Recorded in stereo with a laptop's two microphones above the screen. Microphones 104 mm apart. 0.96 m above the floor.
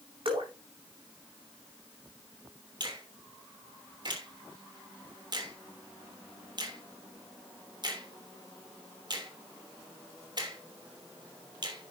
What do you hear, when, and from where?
0.2 s dripping: 55° right (ahead or behind), 6 m
2.8 s a finger snap: 45° right (ahead or behind), 3 m